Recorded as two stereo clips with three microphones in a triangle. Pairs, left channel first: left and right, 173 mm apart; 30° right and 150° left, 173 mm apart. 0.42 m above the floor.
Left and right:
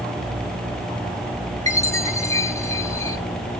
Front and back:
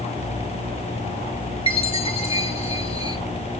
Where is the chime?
20° left, 1.3 m.